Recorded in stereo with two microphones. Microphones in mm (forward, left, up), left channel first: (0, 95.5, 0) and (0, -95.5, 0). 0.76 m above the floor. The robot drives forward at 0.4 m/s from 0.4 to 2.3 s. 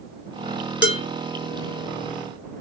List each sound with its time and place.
0.8 s dishes clattering: 65° left (ahead or behind), 0.9 m